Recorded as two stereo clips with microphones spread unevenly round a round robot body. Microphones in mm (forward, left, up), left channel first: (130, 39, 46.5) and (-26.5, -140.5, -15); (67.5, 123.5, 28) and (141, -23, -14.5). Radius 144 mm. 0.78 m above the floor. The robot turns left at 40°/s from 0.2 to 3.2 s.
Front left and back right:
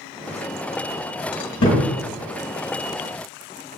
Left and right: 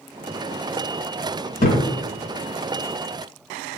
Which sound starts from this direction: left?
A thud, at 1.6 s.